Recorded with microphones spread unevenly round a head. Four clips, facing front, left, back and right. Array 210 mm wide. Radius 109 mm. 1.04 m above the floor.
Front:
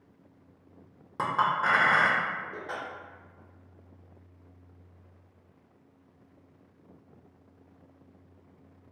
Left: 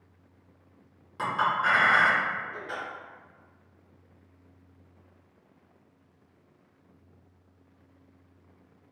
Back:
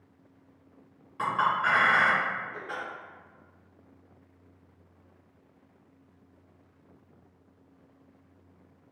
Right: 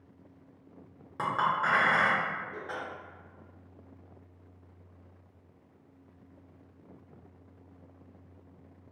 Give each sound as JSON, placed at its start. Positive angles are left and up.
{"t": 1.2, "sound": "a clink", "azimuth_deg": -10, "distance_m": 0.6}